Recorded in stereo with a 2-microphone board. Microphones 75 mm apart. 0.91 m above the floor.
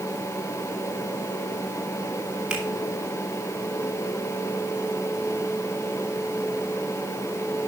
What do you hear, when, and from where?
2.5 s a finger snap: 15° right (ahead or behind), 2.0 m